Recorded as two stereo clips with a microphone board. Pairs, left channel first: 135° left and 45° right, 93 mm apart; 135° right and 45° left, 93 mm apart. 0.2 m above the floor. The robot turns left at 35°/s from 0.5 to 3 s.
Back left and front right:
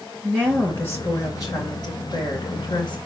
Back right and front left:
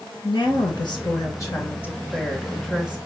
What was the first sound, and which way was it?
A woman speaking, 150° right.